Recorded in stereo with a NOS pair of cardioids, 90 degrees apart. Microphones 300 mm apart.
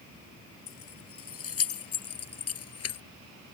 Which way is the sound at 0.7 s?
50° left.